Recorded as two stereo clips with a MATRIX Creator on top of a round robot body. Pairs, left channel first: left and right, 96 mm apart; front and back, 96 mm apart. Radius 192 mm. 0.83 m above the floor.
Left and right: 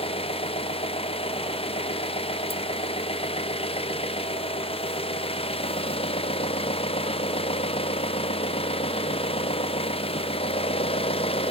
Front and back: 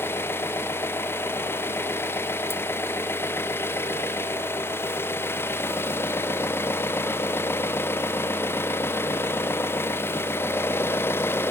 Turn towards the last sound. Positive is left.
turn(degrees=70)